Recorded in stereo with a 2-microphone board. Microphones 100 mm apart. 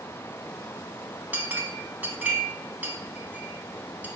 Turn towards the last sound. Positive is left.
turn(degrees=-15)  # may be behind; listen again after turning